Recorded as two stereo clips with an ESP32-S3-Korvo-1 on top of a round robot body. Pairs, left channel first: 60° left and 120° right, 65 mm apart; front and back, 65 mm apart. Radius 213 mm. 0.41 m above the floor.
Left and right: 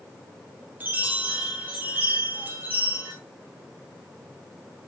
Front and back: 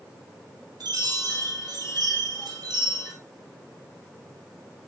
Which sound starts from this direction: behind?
A chime, at 0.8 s.